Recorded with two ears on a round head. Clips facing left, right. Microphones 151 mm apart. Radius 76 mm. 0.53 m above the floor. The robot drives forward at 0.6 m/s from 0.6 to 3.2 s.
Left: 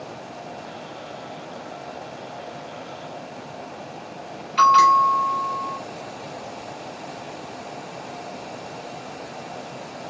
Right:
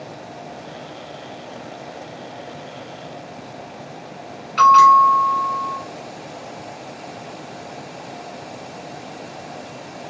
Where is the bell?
10° left (ahead or behind), 1.9 m.